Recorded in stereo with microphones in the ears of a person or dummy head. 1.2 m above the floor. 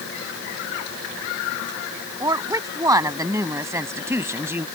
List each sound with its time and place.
2.2 s a woman speaking: 20° right (ahead or behind); by 4.7 s 15° right (ahead or behind)